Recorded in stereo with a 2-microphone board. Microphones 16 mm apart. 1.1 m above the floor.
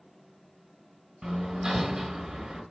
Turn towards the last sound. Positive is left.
turn(degrees=-75)  # may be behind; listen again after turning